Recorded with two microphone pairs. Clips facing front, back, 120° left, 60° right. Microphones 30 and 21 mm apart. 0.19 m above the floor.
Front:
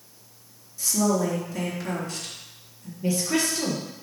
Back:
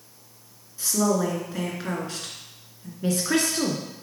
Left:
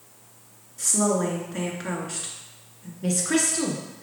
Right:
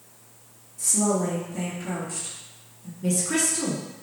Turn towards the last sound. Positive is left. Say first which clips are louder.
# back 1 dB, left 1 dB
turn(degrees=175)